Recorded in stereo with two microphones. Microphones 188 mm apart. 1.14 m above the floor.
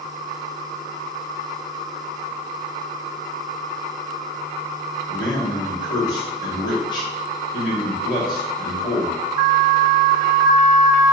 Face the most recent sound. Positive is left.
turn(degrees=25)  # may be behind; listen again after turning